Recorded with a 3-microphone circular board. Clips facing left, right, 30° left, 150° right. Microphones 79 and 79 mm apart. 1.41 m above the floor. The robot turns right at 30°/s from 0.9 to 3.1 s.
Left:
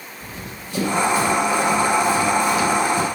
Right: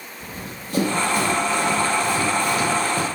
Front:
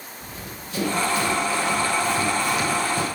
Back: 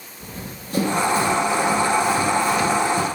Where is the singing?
No singing in this recording.